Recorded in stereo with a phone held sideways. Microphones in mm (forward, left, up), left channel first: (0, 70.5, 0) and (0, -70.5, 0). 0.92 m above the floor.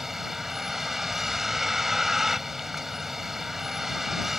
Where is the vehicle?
Centre (ahead or behind).